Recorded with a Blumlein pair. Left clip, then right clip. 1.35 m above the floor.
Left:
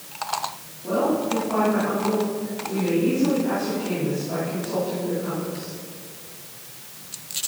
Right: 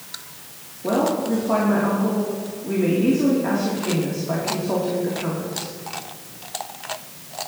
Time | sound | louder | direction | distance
0.8 | a woman speaking | right 1 dB | 60° right | 3 m